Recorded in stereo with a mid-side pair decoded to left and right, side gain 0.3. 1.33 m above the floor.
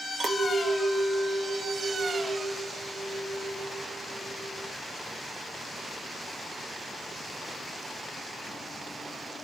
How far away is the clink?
About 0.8 m.